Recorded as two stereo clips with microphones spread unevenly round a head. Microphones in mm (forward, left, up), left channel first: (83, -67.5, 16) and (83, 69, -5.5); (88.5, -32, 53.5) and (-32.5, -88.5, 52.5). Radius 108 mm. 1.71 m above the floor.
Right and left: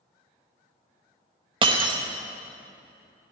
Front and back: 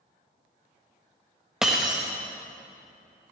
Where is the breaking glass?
120° left, 1.0 m.